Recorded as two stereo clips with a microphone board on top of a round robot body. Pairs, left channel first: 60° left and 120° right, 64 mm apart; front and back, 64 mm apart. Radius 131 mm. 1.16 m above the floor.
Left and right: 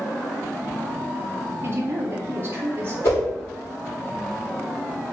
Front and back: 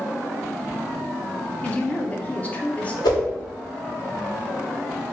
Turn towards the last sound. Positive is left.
turn(degrees=10)